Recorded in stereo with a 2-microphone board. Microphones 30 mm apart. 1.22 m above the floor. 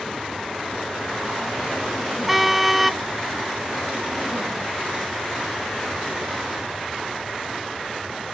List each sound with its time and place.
2.3 s a car horn: 10° right (ahead or behind)